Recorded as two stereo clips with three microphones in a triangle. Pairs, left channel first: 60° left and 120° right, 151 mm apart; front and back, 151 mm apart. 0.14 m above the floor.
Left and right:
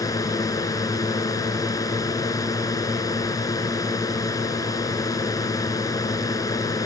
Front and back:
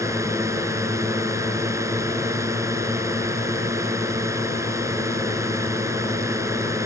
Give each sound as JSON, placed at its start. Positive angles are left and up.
{"t": 0.0, "sound": "a drone", "azimuth_deg": 120}